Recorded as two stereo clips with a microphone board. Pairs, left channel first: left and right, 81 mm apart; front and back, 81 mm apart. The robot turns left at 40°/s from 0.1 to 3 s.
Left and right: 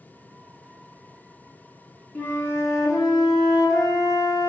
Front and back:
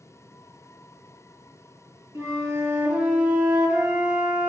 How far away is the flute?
About 0.7 m.